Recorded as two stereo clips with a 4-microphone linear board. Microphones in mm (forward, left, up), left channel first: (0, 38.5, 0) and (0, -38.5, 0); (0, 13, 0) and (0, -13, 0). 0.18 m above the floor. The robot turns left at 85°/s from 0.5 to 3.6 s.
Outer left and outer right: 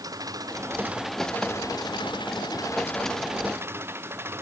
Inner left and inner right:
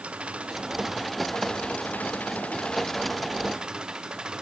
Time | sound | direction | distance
0.0 | an engine running | 125° right | ?